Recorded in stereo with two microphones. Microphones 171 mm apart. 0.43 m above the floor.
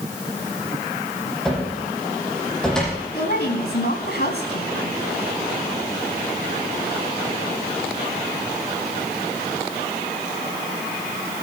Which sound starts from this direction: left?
A woman speaking, at 3.1 s.